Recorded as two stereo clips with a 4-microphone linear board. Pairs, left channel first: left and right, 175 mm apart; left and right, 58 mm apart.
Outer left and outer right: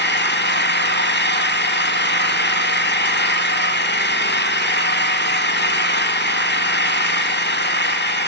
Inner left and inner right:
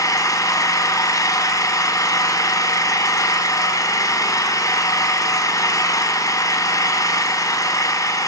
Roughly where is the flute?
I don't hear a flute.